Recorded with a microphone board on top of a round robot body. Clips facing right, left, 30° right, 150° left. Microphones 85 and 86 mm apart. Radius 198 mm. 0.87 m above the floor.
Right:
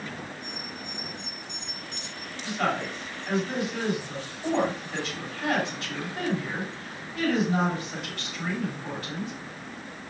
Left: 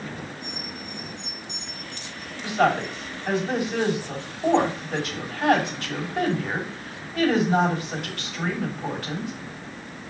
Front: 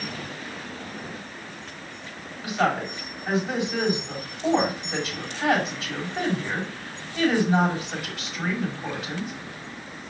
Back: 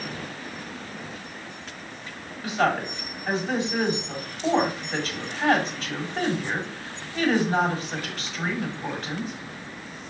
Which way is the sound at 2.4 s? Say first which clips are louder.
Left 6 dB, even; 55° left.